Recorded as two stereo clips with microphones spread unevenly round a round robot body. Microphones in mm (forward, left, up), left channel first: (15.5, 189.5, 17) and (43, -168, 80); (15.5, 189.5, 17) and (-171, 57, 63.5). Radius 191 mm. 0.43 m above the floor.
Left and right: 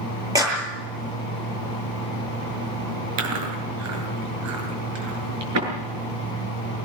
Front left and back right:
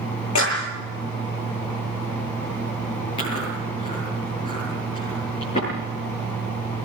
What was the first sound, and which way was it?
A clap, 5° right.